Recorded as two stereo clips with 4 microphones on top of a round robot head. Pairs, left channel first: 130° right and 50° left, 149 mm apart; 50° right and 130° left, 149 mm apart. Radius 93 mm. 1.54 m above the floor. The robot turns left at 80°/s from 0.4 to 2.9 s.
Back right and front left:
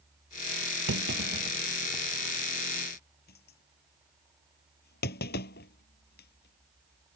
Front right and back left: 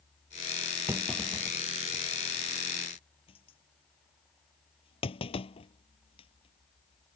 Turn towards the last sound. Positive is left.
turn(degrees=-110)